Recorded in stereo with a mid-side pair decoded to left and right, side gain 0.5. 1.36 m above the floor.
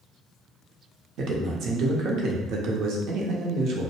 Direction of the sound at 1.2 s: 65° right.